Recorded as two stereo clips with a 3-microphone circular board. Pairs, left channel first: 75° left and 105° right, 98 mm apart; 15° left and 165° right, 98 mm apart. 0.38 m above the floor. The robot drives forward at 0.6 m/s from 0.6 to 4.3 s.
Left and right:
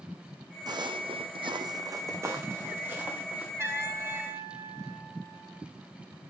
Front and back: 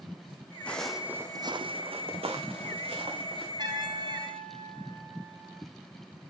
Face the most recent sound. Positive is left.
turn(degrees=-165)